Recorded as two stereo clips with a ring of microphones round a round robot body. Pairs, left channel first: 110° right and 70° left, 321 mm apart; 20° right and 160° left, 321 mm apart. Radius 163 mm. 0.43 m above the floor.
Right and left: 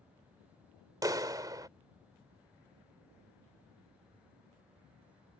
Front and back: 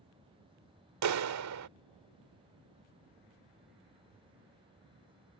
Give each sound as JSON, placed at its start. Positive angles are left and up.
{"t": 1.0, "sound": "a clap", "azimuth_deg": 145}